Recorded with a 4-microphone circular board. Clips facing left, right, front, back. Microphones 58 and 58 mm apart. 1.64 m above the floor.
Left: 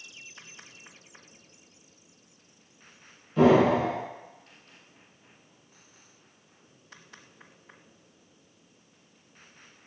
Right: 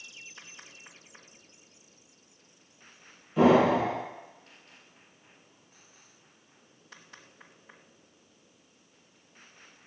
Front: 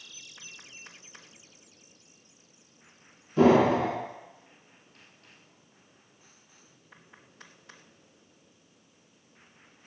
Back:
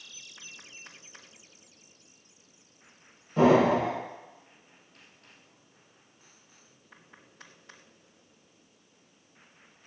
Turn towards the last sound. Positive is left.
turn(degrees=-170)